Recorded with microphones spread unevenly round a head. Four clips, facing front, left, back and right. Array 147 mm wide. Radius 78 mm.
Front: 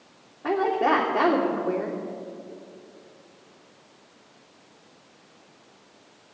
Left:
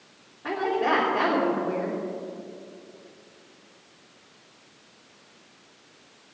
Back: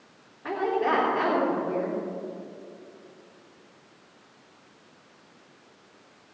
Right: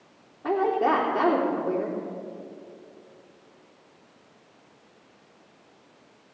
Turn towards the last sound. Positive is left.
turn(degrees=-30)